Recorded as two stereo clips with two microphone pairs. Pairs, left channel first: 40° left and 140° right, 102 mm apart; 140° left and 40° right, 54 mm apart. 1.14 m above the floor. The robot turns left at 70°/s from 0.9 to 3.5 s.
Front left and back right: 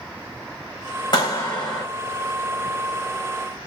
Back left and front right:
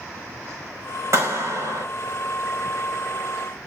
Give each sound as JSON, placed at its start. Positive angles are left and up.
{"t": 1.1, "sound": "a clap", "azimuth_deg": -5, "distance_m": 4.5}